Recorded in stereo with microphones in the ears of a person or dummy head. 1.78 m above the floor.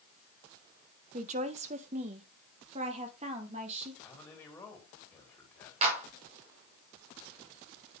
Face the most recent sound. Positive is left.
turn(degrees=-40)  # may be behind; listen again after turning